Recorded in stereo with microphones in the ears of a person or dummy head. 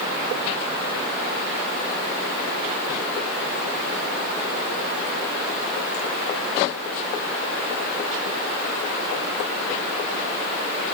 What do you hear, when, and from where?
Only background noise.